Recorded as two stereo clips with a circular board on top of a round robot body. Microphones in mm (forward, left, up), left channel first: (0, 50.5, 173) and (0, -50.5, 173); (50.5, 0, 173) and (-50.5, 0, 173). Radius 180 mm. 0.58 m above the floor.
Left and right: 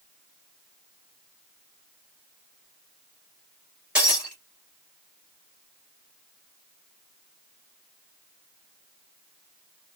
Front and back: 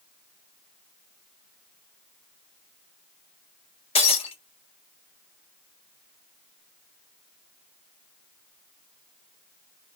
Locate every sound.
4.0 s breaking glass: 10° right, 2.5 m